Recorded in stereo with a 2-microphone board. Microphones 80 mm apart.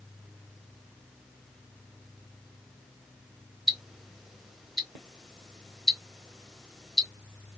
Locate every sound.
3.7 s ticking: centre (ahead or behind), 1.0 m